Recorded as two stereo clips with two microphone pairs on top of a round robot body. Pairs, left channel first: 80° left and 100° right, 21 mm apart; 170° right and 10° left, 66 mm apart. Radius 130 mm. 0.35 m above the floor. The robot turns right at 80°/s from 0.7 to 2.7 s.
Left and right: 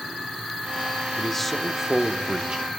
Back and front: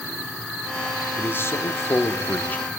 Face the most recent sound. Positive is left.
turn(degrees=-100)